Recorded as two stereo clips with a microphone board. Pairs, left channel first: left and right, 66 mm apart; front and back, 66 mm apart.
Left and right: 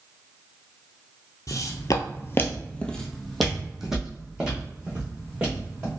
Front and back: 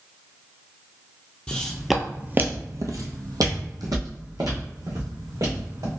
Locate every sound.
1.5 s footsteps: 70° left, 0.6 m; by 5.9 s 160° right, 2 m